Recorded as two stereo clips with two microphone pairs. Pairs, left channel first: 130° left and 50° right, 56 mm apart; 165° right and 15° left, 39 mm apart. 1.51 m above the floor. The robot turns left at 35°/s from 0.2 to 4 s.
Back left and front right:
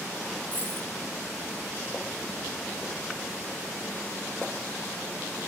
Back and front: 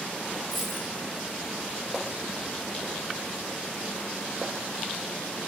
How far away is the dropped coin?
About 1.2 m.